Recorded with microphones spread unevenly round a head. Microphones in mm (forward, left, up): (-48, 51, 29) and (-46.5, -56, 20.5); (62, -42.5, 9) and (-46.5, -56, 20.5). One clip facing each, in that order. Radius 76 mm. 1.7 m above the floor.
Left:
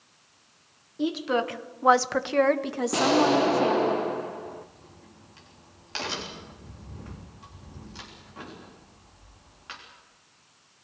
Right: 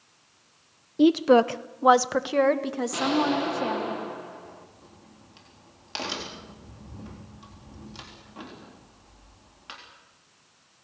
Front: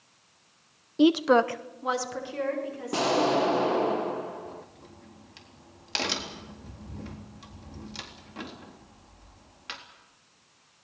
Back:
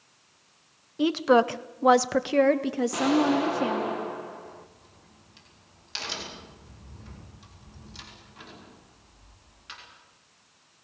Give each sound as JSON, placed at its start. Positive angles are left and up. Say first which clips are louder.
{"t": 1.0, "sound": "a woman speaking", "louder": "right 9 dB, front 1 dB", "azimuth_deg": -50, "distance_m": 0.7}
{"t": 2.9, "sound": "an explosion", "louder": "left 4 dB, even", "azimuth_deg": 65, "distance_m": 0.8}
{"t": 4.5, "sound": "a crack", "louder": "left 5 dB, front 4 dB", "azimuth_deg": -15, "distance_m": 3.5}